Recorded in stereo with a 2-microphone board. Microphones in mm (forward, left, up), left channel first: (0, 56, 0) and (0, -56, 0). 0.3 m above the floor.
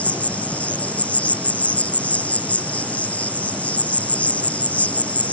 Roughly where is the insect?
Centre.